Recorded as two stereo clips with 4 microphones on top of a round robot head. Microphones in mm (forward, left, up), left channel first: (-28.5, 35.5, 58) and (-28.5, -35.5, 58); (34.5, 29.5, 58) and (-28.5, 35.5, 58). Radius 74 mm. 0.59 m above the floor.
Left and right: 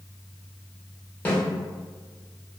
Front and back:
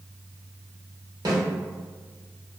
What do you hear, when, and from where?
1.2 s a snare drum: 160° left, 1.1 m